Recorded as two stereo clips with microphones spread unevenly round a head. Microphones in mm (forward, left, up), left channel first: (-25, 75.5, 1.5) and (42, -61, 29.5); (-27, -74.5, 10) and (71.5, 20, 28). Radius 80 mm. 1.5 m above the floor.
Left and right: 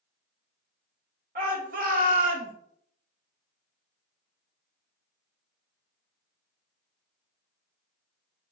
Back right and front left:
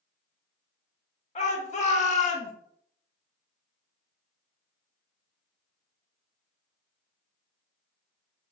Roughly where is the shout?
Right.